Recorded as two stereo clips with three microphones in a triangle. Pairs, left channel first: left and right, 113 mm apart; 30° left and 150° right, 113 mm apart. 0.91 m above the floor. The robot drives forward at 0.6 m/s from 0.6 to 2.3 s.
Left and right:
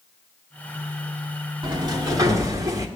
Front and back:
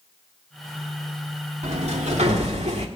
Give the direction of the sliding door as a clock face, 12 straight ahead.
5 o'clock.